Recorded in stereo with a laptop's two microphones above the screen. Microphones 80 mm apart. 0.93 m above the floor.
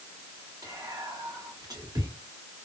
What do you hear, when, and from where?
0.6 s whispering: 55° right (ahead or behind), 1.5 m